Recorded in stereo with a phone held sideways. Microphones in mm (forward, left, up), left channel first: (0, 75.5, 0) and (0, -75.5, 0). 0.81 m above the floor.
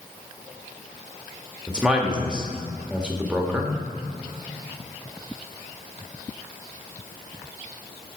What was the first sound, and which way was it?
A man speaking, 5° right (ahead or behind).